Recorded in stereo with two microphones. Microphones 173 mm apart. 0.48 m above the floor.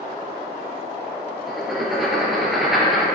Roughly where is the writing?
Centre.